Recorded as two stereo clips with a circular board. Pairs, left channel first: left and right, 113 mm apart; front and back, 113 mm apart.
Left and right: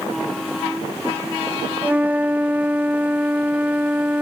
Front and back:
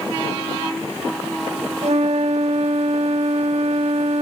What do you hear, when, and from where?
1.8 s a flute: 165° right